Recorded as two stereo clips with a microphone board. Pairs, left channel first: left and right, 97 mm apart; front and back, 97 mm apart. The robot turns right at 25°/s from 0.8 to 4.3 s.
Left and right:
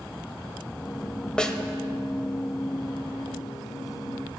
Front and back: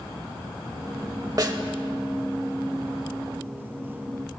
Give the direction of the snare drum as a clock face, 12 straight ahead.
6 o'clock.